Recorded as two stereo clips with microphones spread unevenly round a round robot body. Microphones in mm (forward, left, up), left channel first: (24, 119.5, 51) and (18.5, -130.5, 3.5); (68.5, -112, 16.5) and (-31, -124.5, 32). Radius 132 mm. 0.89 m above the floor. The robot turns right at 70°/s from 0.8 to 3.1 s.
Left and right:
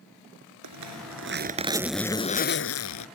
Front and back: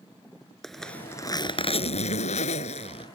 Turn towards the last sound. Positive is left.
turn(degrees=80)